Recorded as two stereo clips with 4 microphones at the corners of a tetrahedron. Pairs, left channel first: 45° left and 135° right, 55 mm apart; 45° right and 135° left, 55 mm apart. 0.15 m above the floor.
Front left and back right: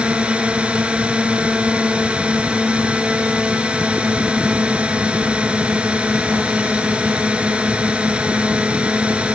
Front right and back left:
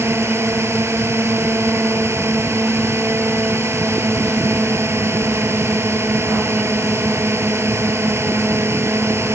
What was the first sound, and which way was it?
A drone, 160° left.